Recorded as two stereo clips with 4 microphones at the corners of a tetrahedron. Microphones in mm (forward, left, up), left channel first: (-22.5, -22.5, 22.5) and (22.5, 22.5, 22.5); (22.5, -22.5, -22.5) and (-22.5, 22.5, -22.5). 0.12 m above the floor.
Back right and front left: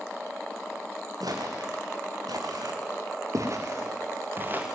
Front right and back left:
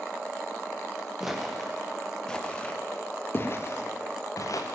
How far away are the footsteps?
About 4 m.